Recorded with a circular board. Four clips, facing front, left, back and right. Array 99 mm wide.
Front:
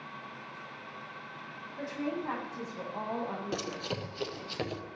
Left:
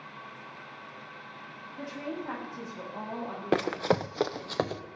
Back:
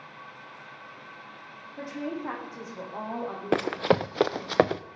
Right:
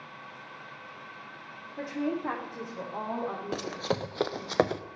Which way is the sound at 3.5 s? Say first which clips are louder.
Left 9 dB, back 12 dB; 145° left.